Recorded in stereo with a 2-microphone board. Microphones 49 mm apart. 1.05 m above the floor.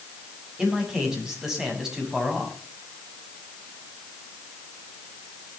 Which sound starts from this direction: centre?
A man speaking, at 0.6 s.